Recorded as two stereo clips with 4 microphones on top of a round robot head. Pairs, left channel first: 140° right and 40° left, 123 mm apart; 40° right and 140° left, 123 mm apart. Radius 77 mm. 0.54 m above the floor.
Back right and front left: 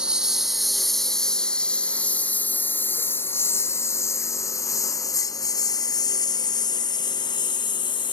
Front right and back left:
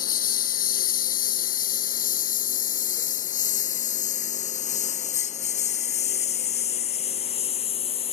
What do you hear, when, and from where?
0.0 s a lawn mower: 45° right; by 8.1 s 85° right